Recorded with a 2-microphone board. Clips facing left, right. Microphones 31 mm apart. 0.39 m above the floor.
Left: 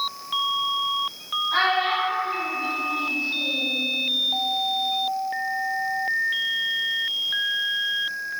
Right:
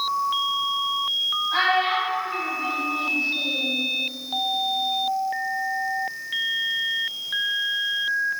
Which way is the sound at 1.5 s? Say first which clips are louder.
Left 1 dB; 5° left (ahead or behind).